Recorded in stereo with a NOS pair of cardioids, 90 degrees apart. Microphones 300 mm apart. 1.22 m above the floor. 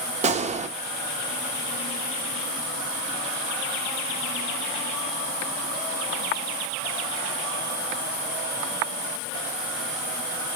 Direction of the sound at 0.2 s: 25° right.